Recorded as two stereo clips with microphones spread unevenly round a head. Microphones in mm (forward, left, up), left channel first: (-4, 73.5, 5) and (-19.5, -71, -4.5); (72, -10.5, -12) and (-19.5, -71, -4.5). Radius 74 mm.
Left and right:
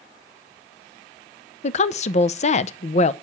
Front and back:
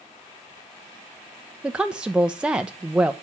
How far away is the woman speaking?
About 0.7 m.